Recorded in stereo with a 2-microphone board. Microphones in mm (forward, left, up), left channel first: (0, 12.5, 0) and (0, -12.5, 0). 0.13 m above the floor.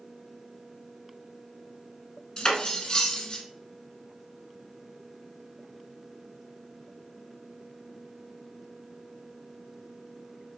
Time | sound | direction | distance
2.4 | cutlery clinking | 30° left (ahead or behind) | 0.7 m